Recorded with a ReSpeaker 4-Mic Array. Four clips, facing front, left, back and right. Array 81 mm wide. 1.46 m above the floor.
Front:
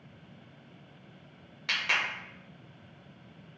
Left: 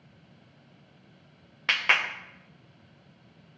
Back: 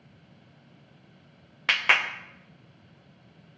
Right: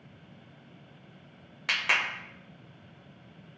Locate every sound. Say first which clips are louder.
1.7 s a clap: left 3 dB, back 7 dB; 155° left, 0.5 m